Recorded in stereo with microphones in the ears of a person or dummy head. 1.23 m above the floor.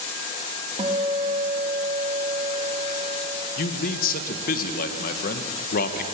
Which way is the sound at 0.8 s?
35° right (ahead or behind).